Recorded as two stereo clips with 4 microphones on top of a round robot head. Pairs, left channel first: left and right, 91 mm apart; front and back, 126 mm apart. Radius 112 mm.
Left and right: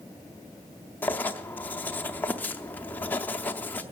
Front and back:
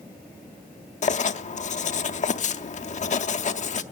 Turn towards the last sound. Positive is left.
turn(degrees=20)